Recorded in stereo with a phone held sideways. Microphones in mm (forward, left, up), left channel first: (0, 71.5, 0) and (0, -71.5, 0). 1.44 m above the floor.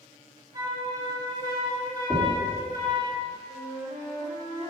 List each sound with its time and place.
0.5 s a flute: 30° right (ahead or behind), 2.5 m
2.1 s knocking: 15° left (ahead or behind), 3 m
3.5 s a flute: 50° right (ahead or behind), 3.5 m